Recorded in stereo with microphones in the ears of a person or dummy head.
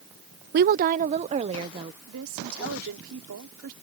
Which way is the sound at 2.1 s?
85° right.